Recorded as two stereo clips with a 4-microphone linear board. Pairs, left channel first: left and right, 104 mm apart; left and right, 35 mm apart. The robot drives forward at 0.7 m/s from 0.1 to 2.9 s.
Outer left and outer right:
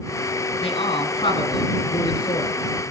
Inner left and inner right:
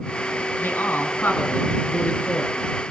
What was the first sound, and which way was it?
A man speaking, 60° left (ahead or behind).